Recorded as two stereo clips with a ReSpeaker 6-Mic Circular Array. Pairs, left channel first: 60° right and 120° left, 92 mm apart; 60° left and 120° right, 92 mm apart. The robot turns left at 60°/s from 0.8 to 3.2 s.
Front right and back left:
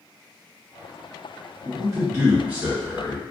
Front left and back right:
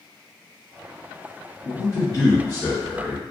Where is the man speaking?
105° left, 1.9 m; by 3.2 s 15° left, 1.9 m.